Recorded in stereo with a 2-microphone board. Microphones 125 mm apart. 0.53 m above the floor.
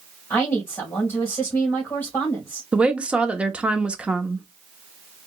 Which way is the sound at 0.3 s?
20° left (ahead or behind).